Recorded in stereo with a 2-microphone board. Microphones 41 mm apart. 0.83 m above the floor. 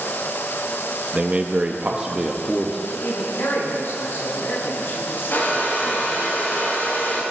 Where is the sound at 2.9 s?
70° left (ahead or behind), 6 m.